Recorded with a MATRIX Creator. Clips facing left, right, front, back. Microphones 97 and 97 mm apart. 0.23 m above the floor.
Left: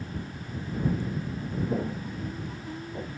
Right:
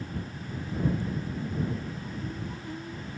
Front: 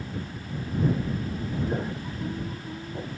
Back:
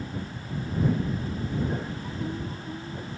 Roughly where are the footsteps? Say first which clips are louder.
Left 5 dB, front 2 dB; left.